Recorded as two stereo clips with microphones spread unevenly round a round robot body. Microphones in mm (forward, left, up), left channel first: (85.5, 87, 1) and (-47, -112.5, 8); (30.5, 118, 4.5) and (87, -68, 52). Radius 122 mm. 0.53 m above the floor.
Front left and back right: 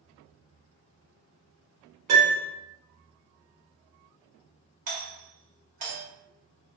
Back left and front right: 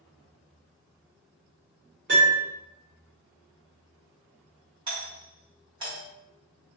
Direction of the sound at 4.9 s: 145° right.